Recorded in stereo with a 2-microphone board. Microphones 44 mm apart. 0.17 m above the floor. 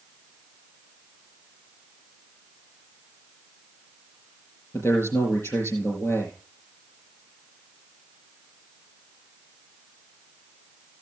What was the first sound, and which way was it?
A man speaking, 75° left (ahead or behind).